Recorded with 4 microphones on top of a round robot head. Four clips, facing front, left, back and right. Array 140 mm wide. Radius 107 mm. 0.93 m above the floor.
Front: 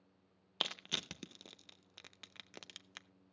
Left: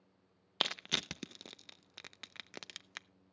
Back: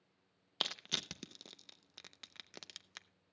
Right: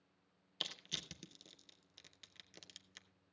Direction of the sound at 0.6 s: 95° left.